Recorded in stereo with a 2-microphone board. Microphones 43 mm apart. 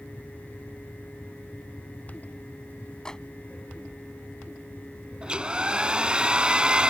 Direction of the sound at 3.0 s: 15° left (ahead or behind).